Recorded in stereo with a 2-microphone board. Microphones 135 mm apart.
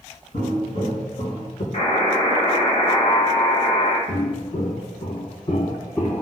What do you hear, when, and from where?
0.3 s footsteps: 70° left (ahead or behind), 1.9 m; by 1.6 s 45° left (ahead or behind), 1.3 m
1.7 s a buzzer: 65° left (ahead or behind), 1.6 m
4.1 s footsteps: 65° left (ahead or behind), 1.3 m; by 6.2 s 10° left (ahead or behind), 0.6 m